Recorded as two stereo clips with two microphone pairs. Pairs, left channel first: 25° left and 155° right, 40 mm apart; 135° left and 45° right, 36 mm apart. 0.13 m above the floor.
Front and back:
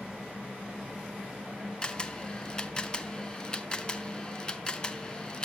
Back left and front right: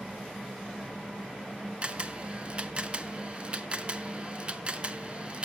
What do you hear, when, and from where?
1.8 s a camera shutter: 20° right, 0.7 m